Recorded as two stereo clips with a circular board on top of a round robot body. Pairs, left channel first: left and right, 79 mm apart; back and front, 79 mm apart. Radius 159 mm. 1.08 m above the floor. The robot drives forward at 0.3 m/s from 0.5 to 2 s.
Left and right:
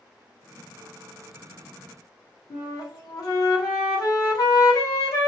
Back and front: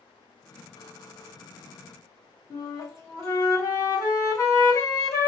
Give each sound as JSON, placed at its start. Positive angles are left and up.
{"t": 2.5, "sound": "a flute", "azimuth_deg": 130, "distance_m": 1.4}